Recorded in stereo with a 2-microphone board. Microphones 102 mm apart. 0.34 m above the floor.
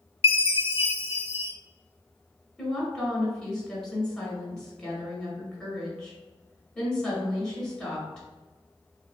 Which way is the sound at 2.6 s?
5° left (ahead or behind).